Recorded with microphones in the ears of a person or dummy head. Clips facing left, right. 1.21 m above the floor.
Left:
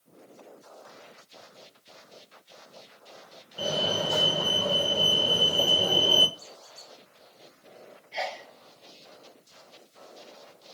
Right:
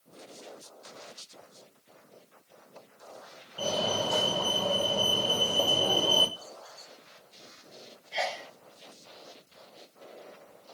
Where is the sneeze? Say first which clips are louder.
Right 1 dB; 5° right (ahead or behind), 0.8 m.